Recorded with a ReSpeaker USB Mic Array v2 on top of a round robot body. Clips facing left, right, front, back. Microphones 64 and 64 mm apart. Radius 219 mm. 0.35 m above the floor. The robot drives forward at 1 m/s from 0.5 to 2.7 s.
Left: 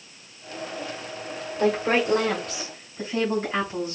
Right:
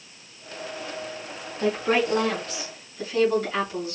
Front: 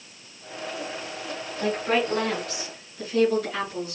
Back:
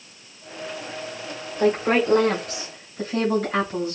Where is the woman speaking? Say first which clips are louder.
Left 1 dB, back 5 dB; 135° left, 2.5 m; by 4.0 s 150° left, 3 m.